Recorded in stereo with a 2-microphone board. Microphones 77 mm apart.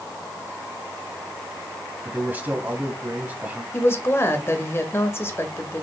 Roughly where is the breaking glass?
No breaking glass in this recording.